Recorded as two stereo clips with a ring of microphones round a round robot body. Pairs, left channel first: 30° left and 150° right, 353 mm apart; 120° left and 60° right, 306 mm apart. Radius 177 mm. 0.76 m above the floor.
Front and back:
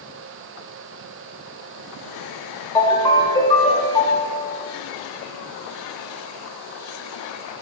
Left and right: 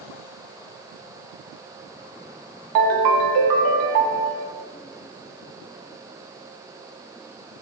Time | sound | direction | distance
2.8 | a ringtone | 50° right | 1.1 m